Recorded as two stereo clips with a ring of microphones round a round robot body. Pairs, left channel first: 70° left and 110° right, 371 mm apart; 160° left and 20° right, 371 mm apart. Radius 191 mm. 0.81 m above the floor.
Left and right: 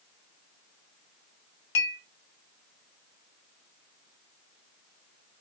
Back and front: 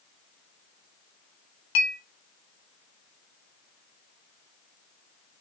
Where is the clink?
125° left, 1.3 m.